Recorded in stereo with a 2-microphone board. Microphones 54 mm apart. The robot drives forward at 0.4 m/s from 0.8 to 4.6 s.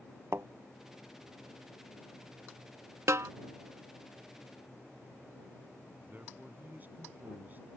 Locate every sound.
0.3 s a thud: 55° right (ahead or behind)
3.1 s a snare drum: 65° right (ahead or behind)
6.0 s a man speaking: 35° right (ahead or behind)